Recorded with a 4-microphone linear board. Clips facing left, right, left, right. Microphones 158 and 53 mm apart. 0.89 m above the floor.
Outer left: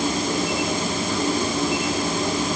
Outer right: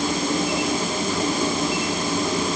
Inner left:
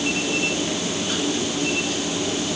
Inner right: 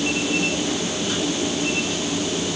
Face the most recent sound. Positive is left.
No sound to turn to.